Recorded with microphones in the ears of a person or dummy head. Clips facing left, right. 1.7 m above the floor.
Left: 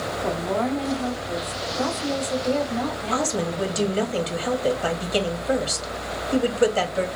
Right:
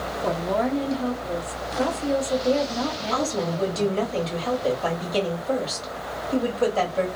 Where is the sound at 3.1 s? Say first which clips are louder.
Left 1 dB; 20° left (ahead or behind), 0.9 m.